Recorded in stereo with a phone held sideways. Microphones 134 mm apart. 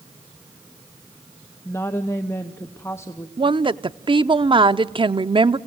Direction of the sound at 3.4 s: 40° right (ahead or behind).